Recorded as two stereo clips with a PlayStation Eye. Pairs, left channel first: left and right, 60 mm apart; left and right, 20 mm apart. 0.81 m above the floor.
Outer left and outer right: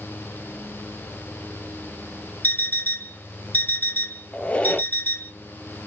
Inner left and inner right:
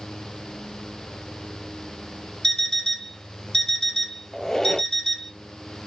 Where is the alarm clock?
30° left (ahead or behind), 0.8 m.